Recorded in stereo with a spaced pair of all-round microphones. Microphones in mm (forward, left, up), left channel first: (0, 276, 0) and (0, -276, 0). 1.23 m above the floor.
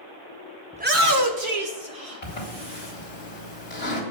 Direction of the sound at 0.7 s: 10° right (ahead or behind).